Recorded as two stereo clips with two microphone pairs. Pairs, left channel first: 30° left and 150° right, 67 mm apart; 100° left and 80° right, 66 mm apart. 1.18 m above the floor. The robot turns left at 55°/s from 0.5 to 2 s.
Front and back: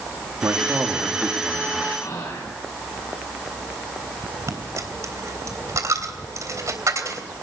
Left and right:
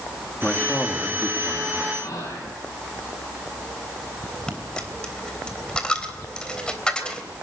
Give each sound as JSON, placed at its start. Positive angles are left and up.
{"t": 0.4, "sound": "a man speaking", "azimuth_deg": 170, "distance_m": 2.0}
{"t": 1.9, "sound": "whispering", "azimuth_deg": 75, "distance_m": 9.5}
{"t": 4.5, "sound": "a dropped coin", "azimuth_deg": 175, "distance_m": 3.0}